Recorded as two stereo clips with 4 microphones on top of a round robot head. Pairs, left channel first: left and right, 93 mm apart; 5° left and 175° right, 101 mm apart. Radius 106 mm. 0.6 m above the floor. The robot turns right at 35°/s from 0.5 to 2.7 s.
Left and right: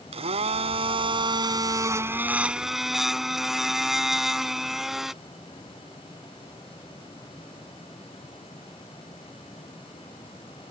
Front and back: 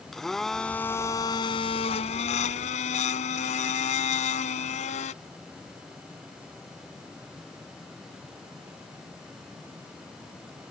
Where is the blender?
80° right; by 5.1 s 5° right.